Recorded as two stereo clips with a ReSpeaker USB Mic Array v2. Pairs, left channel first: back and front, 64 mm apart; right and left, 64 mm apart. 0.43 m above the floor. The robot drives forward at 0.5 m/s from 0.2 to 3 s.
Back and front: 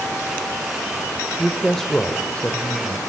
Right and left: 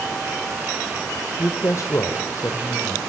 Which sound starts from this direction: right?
A woman speaking, at 1.4 s.